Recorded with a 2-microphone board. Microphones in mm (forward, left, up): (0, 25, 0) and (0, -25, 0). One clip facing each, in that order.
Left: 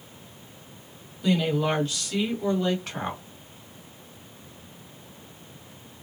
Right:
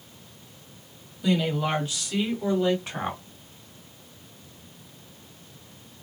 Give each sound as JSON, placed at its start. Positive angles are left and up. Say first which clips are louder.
{"t": 1.2, "sound": "a woman speaking", "louder": "left 1 dB", "side_deg": 0, "distance_m": 1.5}